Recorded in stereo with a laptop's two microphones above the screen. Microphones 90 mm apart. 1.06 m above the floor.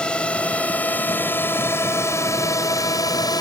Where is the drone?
10° left (ahead or behind); by 3.4 s 45° left (ahead or behind).